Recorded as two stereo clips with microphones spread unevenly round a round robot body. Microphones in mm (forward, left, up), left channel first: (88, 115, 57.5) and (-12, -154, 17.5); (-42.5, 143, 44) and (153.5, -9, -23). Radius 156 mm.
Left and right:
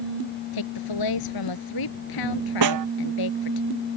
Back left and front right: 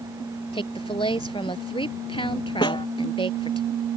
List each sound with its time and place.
0.5 s a woman speaking: 75° left
2.6 s a snare drum: 140° right